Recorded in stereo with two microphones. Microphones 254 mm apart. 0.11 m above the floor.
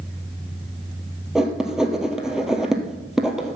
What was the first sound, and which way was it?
Writing, 5° right (ahead or behind).